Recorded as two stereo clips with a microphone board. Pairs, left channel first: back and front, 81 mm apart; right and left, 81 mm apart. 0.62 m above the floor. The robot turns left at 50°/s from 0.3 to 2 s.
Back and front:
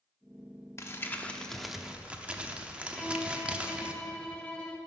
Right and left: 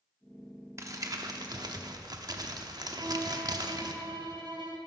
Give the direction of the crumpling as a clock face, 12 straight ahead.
8 o'clock.